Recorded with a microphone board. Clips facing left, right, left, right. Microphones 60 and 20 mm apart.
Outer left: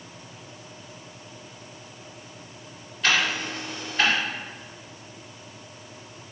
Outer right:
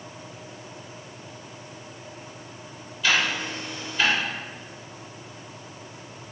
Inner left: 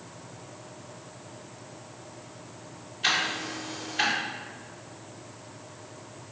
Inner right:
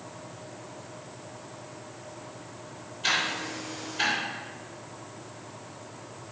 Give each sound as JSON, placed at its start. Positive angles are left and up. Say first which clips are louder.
{"t": 3.0, "sound": "ticking", "louder": "even, inner left 1 dB", "side_deg": 55, "distance_m": 2.0}